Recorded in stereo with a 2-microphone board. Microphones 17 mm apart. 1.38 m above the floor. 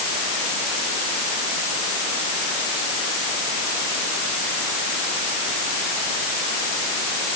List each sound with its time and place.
Only background noise.